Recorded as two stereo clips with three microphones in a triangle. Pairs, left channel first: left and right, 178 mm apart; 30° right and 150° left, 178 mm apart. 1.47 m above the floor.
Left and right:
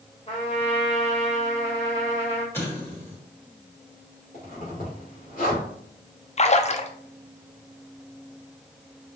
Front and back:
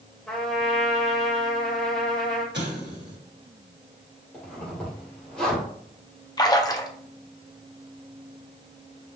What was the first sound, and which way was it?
A trumpet, 55° left.